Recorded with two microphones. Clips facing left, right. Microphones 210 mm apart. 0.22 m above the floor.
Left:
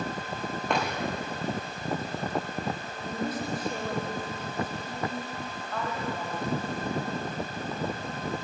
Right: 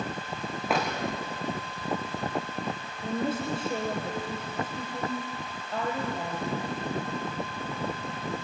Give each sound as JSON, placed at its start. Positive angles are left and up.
{"t": 0.7, "sound": "a drawer", "side_deg": -5, "distance_m": 5.5}
{"t": 3.0, "sound": "a woman speaking", "side_deg": -30, "distance_m": 6.5}